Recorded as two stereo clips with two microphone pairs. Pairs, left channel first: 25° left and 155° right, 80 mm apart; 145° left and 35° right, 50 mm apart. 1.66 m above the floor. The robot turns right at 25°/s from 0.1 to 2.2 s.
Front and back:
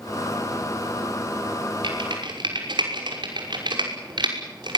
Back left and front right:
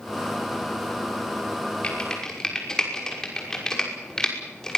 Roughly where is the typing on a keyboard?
Behind right.